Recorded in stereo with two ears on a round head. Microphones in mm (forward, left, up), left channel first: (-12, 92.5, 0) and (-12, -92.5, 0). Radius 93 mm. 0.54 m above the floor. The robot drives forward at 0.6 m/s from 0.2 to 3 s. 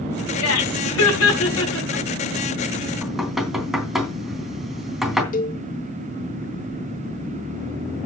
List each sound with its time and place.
0.4 s laughter: 80° left, 4.5 m; by 2.1 s 75° left (ahead or behind), 4.5 m
3.0 s knocking: centre (ahead or behind), 3.5 m
5.3 s a cowbell: 40° left (ahead or behind), 1.2 m